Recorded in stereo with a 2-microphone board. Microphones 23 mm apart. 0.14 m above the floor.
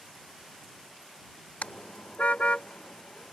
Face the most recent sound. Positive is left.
turn(degrees=65)  # may be behind; listen again after turning